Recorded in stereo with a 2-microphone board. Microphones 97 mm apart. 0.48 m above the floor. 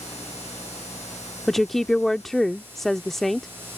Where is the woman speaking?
Centre (ahead or behind).